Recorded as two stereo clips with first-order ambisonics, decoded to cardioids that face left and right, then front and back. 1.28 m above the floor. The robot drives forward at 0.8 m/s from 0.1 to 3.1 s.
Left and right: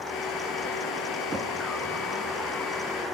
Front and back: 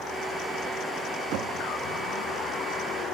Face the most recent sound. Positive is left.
turn(degrees=-170)